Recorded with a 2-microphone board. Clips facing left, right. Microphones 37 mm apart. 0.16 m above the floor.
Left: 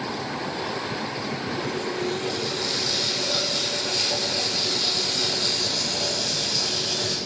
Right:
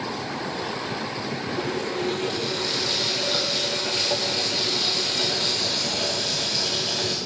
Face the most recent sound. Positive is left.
turn(degrees=-30)  # may be behind; listen again after turning